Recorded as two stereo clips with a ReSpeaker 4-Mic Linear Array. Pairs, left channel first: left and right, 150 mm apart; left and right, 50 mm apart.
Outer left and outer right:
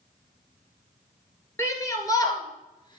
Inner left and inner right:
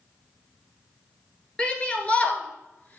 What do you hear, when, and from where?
1.6 s a shout: 20° left (ahead or behind), 1.6 m; by 3.0 s 30° left (ahead or behind), 1.4 m